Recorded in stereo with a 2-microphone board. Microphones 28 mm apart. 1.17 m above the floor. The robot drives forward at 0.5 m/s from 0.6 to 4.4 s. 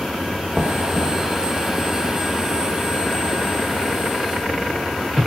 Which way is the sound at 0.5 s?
25° right (ahead or behind).